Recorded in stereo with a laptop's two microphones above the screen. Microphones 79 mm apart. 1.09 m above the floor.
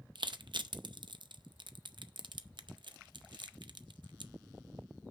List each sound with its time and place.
0.1 s crushing: 75° right (ahead or behind), 0.6 m